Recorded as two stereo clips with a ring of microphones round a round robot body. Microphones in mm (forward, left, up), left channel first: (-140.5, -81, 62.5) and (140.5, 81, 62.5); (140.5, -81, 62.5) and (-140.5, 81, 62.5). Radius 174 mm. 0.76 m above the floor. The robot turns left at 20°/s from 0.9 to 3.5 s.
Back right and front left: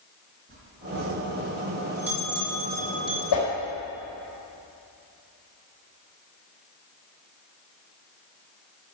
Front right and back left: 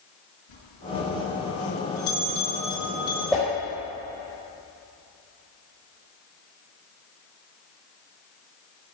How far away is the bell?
About 4.5 m.